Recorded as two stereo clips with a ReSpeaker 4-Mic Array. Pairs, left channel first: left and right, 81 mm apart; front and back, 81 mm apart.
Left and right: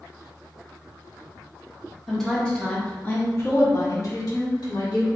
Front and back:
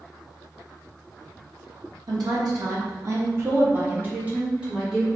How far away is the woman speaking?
About 1.5 m.